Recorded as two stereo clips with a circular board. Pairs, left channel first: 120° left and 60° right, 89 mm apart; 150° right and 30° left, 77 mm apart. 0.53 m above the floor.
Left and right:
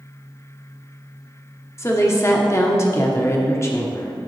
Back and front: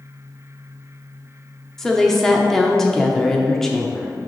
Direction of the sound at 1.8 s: 130° left.